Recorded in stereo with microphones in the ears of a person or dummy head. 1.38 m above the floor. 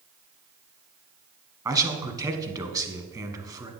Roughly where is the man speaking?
Centre.